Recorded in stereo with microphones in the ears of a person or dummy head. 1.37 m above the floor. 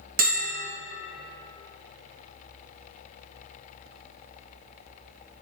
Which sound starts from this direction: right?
A bell, at 0.2 s.